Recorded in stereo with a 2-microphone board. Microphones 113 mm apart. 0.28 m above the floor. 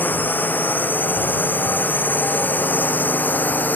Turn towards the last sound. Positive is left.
turn(degrees=15)  # may be behind; listen again after turning